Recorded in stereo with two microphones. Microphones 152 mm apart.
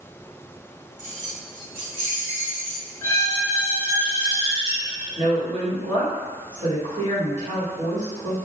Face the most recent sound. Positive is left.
turn(degrees=-55)  # may be behind; listen again after turning